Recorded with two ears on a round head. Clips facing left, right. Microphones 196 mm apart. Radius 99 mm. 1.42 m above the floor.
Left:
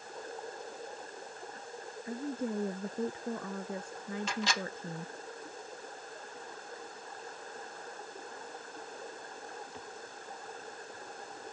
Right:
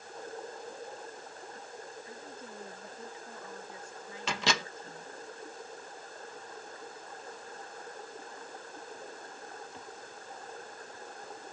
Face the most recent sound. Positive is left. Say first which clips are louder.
# right 5 dB
turn(degrees=-60)  # may be behind; listen again after turning